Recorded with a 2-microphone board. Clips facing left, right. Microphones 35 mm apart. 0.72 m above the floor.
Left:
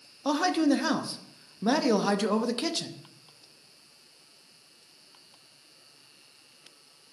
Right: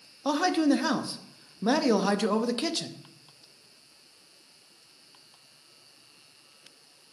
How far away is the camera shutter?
No camera shutter in this recording.